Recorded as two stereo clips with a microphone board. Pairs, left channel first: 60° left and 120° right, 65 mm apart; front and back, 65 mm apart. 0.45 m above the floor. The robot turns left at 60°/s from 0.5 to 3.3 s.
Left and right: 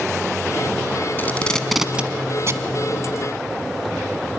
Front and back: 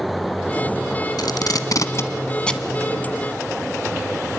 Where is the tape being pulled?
Straight ahead, 1.1 m; by 2.7 s 90° right, 1.1 m.